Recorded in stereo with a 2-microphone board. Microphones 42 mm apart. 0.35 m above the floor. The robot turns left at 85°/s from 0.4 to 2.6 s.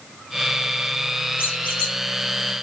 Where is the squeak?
60° left, 6 m; by 2.0 s 10° left, 6 m.